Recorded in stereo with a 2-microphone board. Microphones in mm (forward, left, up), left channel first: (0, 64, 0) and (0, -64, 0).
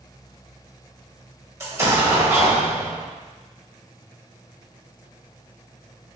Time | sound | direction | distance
1.6 | an explosion | 20° right (ahead or behind) | 0.9 m